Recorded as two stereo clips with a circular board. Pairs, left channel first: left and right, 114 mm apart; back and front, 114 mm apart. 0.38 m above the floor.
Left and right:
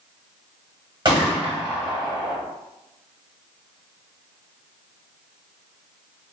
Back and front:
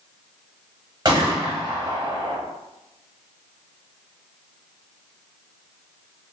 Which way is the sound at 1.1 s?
50° right.